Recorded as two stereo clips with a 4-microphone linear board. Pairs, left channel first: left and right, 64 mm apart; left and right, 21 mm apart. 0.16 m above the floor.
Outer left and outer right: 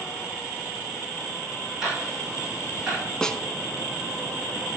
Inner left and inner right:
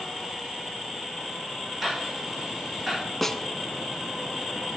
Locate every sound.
1.8 s ticking: 10° right (ahead or behind), 8.5 m
3.2 s a snare drum: 10° left (ahead or behind), 0.9 m